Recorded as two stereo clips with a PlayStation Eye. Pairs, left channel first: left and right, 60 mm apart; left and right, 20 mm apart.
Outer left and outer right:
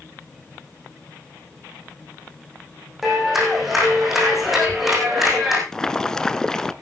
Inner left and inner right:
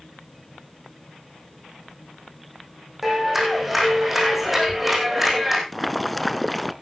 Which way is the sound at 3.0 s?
5° right (ahead or behind).